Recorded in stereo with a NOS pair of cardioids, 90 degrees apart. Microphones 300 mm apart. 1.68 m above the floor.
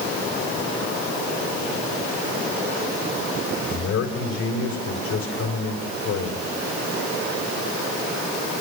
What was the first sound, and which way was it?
A man speaking, 65° left.